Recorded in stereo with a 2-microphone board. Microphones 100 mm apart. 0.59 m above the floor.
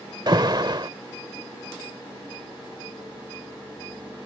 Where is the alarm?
45° right (ahead or behind).